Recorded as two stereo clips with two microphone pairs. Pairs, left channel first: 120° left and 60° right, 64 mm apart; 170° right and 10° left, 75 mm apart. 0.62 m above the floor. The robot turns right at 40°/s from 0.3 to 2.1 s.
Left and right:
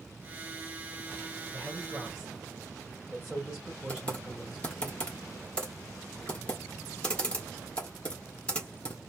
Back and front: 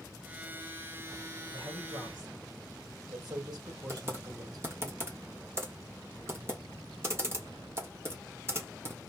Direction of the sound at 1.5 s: Straight ahead.